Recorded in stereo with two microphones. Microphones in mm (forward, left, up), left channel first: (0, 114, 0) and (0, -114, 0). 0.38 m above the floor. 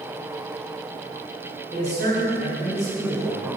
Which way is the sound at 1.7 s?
45° right (ahead or behind).